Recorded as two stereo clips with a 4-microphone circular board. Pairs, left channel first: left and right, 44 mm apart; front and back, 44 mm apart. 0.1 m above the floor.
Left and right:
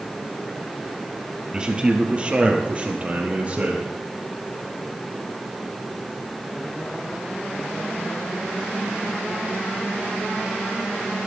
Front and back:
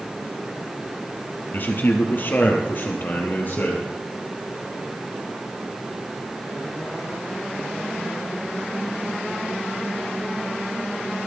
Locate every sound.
1.5 s a man speaking: 25° right, 2.5 m; by 3.8 s 35° right, 4 m